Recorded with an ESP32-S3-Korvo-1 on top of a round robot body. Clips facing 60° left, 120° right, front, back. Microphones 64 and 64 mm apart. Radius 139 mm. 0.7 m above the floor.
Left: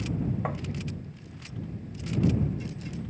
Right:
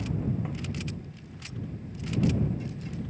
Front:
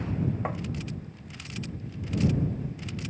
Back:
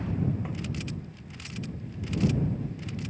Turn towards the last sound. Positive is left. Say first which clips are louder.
# left 4 dB, front 4 dB
turn(degrees=30)